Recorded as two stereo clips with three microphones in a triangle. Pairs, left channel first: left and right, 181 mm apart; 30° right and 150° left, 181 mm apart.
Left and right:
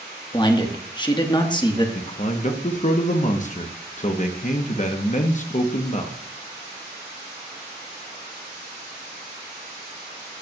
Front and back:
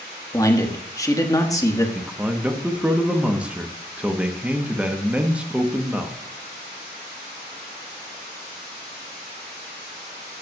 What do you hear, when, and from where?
0.3 s a man speaking: 35° left, 1.3 m
1.9 s a man speaking: 70° left, 0.9 m